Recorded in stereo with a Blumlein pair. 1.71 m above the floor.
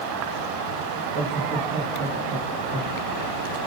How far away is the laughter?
About 5 m.